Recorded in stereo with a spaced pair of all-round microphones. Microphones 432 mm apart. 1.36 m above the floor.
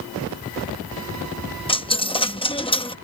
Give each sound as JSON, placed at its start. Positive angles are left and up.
{"t": 1.7, "sound": "a dropped coin", "side_deg": 10}